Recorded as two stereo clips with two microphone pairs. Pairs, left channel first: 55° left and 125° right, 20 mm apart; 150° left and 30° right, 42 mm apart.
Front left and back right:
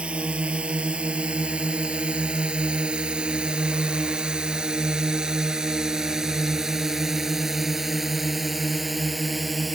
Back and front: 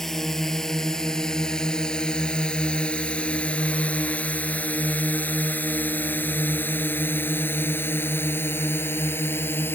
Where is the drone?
125° right; by 9.8 s 150° left.